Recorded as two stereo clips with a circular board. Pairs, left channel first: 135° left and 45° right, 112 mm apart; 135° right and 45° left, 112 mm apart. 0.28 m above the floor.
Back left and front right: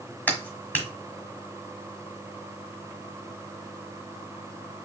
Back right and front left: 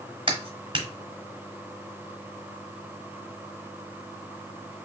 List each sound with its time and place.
0.3 s a clap: 65° left, 1.4 m